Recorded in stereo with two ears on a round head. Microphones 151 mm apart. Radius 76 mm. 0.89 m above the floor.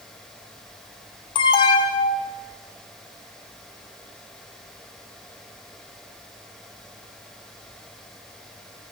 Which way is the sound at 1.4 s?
30° left (ahead or behind).